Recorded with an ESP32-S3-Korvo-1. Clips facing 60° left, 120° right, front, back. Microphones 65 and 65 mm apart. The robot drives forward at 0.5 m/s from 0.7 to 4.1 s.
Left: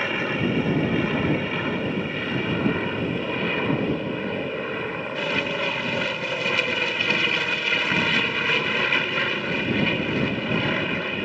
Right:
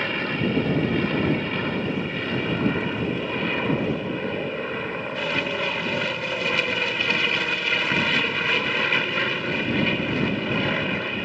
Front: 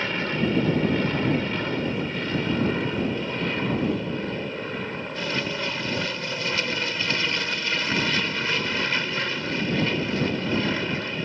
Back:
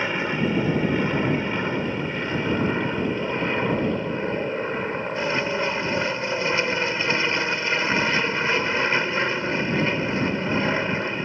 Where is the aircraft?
135° left; by 11.3 s 150° left.